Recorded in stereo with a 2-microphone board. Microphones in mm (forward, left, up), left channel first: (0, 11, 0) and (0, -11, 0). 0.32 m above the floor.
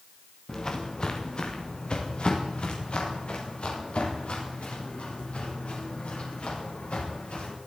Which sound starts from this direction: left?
Footsteps, at 0.5 s.